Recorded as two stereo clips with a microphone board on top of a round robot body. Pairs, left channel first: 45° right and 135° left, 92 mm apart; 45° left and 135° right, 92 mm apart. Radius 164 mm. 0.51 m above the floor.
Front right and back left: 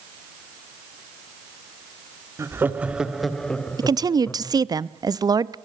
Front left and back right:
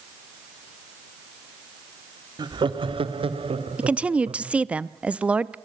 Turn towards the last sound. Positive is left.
turn(degrees=155)